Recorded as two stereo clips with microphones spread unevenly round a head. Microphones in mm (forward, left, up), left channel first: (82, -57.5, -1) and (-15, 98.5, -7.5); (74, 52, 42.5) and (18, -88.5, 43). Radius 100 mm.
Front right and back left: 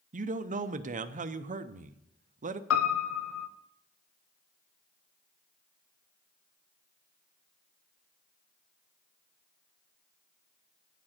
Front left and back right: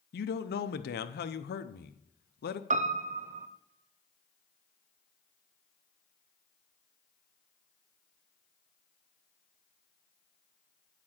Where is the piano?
75° right, 0.7 m.